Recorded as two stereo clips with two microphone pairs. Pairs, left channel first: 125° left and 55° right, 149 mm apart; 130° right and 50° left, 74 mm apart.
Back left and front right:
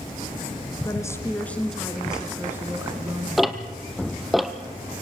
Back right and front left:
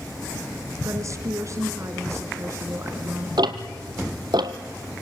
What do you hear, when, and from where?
0.8 s a woman speaking: 70° left, 1.8 m; by 3.3 s straight ahead, 1.9 m
3.4 s ticking: 35° left, 1.1 m